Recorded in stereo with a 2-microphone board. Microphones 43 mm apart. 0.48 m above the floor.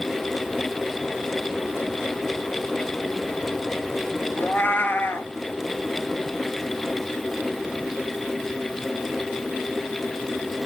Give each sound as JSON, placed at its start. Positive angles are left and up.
{"t": 4.4, "sound": "a cat meowing", "side_deg": 60, "distance_m": 0.8}